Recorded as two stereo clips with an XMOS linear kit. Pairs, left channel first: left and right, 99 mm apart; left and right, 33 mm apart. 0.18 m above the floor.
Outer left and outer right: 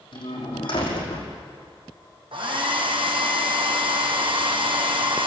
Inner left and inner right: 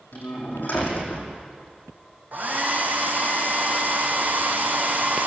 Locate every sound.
0.1 s a door slam: 55° left (ahead or behind), 5.5 m
2.3 s a hair dryer: 60° right (ahead or behind), 2.5 m